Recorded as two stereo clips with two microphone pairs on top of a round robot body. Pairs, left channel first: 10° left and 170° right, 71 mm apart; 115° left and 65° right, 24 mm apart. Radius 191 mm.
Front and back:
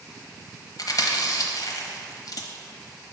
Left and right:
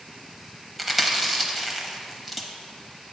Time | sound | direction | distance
0.8 | chewing | 25° left | 1.0 m